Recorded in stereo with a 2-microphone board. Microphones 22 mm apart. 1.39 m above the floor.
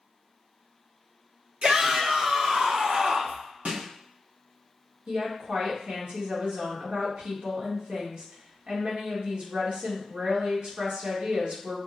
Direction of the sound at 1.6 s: 70° right (ahead or behind).